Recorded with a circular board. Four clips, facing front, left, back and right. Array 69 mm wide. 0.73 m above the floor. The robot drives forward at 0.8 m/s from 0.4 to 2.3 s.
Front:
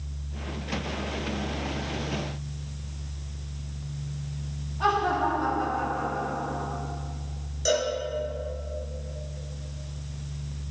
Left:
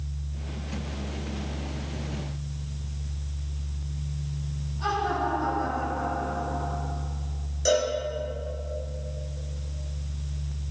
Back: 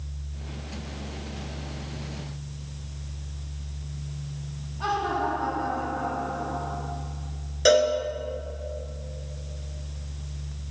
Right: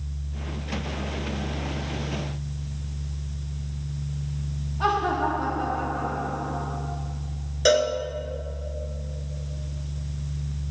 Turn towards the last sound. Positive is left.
turn(degrees=-135)